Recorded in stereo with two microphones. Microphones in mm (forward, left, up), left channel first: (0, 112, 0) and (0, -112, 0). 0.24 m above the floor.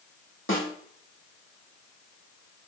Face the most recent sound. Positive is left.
turn(degrees=75)  # may be behind; listen again after turning